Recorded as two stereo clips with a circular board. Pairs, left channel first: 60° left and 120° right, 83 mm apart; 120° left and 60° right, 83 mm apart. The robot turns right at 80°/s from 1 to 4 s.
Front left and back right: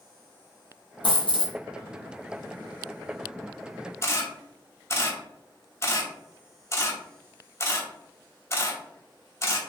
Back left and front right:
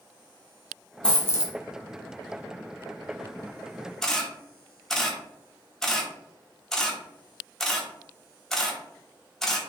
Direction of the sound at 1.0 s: 40° left.